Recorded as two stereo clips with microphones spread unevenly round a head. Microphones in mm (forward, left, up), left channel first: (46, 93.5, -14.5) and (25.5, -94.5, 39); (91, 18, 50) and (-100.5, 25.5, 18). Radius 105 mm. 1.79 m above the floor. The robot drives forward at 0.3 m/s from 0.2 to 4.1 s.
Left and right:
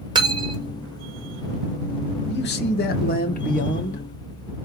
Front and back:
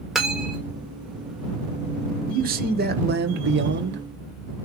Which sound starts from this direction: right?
Cutlery clinking, at 0.1 s.